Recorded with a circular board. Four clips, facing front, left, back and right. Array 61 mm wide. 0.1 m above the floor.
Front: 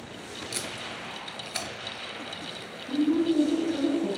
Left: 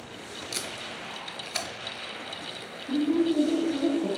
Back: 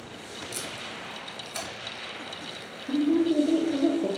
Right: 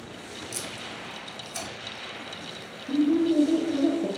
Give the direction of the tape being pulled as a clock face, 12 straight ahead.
10 o'clock.